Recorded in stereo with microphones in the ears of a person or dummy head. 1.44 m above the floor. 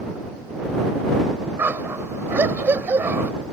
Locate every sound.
1.6 s a dog barking: 15° right (ahead or behind)